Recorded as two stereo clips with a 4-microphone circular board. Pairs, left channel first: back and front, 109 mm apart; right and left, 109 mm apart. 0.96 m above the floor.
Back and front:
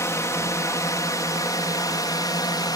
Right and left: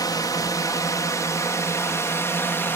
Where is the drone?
125° right; by 2.8 s 150° right.